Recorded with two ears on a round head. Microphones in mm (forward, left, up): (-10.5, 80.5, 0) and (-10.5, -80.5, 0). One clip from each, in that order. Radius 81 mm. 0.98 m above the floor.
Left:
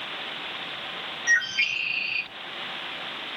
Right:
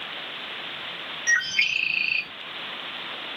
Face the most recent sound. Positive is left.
turn(degrees=-25)  # may be behind; listen again after turning